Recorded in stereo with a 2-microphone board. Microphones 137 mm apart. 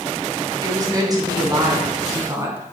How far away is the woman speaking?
About 2.5 m.